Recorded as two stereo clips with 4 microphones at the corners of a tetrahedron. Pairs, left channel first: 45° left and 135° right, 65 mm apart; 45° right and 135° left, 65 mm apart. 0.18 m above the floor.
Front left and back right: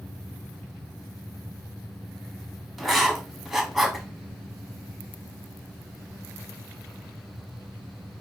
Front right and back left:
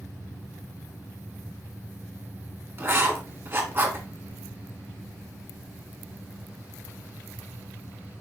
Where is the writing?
140° left, 1.0 m.